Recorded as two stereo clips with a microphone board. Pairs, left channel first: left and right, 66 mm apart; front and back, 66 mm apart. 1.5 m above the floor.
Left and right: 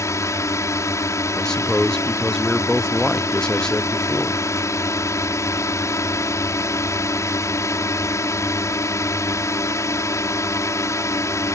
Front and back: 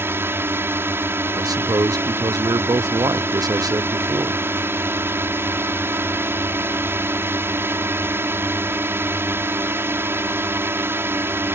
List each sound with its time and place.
0.0 s a drone: 130° left
1.3 s a man speaking: 170° left